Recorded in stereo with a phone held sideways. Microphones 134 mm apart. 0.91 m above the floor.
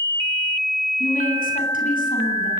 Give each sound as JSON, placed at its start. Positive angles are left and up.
{"t": 1.0, "sound": "a woman speaking", "side_deg": 85, "distance_m": 9.0}